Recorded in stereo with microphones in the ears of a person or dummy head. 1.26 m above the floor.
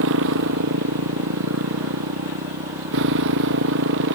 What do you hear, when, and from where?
0.0 s a motorcycle: 75° right (ahead or behind); by 4.2 s 70° right (ahead or behind)